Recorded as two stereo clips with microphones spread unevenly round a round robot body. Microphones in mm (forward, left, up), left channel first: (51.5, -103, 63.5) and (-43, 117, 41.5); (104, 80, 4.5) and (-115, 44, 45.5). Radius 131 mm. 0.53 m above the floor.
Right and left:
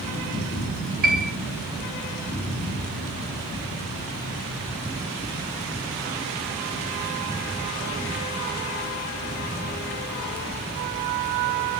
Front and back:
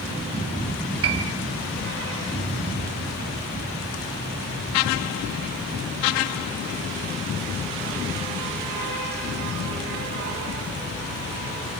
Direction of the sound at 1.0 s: 165° left.